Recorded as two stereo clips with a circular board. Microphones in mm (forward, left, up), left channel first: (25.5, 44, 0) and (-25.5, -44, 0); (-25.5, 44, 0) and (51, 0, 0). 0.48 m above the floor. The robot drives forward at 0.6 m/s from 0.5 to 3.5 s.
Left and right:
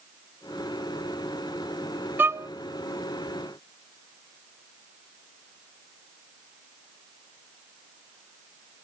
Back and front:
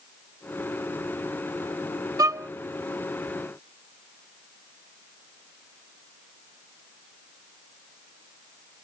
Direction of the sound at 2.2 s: 55° right.